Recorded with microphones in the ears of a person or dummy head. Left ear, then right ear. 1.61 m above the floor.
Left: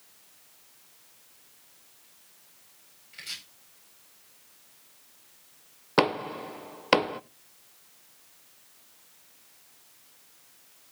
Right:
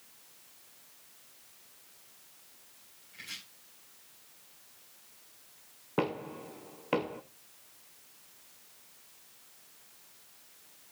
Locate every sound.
3.1 s chopping: 40° left (ahead or behind), 9.5 m
6.0 s knocking: 65° left (ahead or behind), 0.8 m